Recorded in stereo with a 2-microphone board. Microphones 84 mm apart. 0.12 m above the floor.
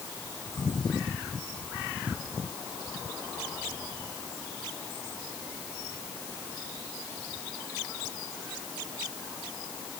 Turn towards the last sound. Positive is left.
No sound to turn to.